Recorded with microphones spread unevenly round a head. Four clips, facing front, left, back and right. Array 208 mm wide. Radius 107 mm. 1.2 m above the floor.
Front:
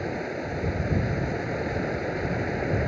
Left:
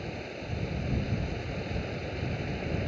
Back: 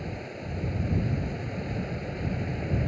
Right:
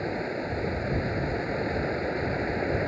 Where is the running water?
40° right.